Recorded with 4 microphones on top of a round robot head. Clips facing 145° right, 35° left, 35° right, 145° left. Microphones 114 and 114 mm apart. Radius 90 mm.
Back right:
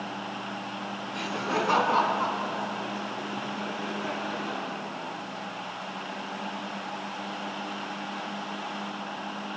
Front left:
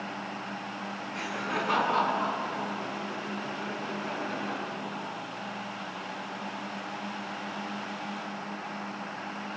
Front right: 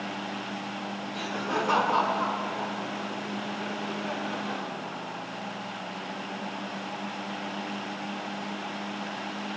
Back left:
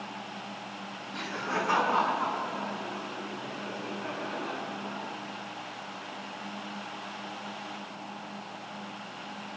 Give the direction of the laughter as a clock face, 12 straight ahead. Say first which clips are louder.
Back right 4 dB, front right 2 dB; 4 o'clock.